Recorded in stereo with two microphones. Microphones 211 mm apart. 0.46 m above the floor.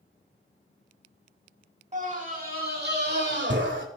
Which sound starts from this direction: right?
A scream, at 1.9 s.